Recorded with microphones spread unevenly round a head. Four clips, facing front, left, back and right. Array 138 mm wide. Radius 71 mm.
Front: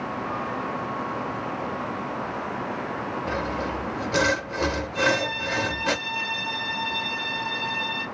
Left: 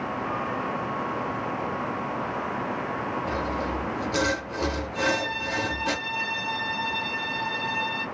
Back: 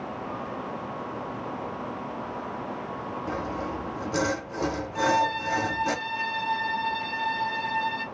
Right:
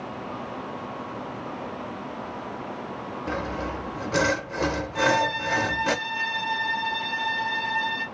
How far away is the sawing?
About 0.8 m.